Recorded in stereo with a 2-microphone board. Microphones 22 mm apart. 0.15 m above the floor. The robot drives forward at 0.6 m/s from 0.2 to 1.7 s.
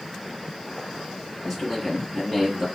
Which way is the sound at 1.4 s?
Centre (ahead or behind).